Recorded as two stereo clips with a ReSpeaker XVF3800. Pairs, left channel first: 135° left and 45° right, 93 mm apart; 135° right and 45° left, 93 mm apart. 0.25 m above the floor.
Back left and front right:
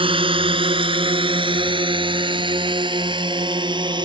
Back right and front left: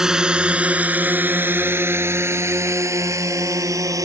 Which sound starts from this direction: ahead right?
A drone, at 0.0 s.